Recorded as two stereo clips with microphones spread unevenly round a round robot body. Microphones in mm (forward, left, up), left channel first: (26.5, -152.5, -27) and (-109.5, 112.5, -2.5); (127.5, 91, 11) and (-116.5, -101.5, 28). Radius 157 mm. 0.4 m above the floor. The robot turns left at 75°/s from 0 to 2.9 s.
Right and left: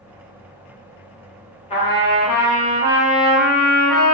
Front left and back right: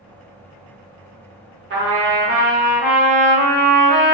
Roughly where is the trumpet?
Right.